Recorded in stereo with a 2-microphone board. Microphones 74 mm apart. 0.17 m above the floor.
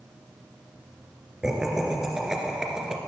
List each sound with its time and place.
1.4 s laughter: 5° right (ahead or behind), 2 m